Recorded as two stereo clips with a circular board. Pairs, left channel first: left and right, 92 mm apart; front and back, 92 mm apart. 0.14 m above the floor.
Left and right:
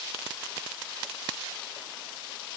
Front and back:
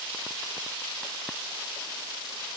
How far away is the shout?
No shout in this recording.